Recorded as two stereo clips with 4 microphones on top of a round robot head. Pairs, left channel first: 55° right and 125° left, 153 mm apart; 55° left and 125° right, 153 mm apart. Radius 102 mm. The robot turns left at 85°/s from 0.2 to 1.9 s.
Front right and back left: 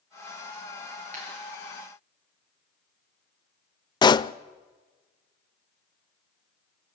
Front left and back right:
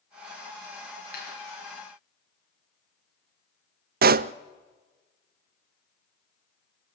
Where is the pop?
115° right, 0.5 m.